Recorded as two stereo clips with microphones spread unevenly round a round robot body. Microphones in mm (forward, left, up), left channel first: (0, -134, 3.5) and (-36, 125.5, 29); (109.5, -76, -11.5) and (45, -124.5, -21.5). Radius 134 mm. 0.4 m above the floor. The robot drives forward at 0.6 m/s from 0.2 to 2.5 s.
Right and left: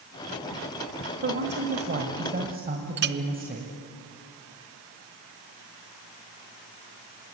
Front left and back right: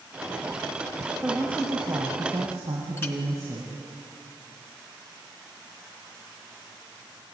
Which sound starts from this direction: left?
A clink, at 3.0 s.